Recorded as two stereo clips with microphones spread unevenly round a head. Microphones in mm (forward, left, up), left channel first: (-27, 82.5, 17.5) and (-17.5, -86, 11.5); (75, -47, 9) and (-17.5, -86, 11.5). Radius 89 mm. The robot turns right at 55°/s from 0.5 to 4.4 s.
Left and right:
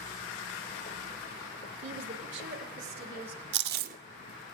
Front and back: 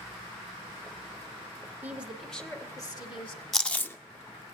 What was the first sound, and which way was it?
A woman speaking, 90° right.